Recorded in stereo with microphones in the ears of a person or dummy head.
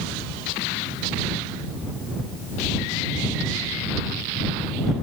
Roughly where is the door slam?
I don't hear a door slam.